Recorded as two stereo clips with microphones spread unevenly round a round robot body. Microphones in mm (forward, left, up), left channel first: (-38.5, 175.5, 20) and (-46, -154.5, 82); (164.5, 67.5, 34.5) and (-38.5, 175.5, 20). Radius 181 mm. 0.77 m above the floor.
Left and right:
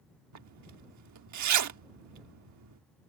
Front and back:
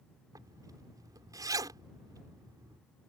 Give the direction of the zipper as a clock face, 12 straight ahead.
4 o'clock.